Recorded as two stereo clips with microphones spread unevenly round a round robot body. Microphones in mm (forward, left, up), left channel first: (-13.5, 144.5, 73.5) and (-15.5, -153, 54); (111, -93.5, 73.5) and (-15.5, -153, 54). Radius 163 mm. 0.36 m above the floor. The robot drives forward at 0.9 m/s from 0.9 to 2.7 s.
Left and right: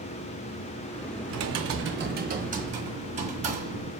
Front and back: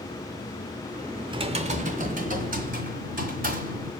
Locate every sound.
1.3 s typing on a keyboard: 105° right, 0.8 m; by 3.9 s 160° right, 1.6 m